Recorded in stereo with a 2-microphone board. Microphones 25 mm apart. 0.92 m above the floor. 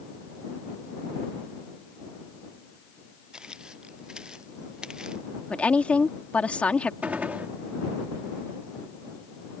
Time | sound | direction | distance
3.3 | footsteps | 35° right (ahead or behind) | ?
5.5 | a woman speaking | 55° left (ahead or behind) | ?
7.0 | a gunshot | 75° right (ahead or behind) | ?